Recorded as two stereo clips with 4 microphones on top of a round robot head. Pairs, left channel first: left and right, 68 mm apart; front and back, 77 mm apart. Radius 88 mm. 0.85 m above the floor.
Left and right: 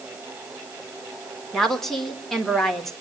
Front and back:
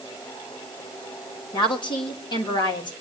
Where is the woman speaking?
5° left, 3.5 m.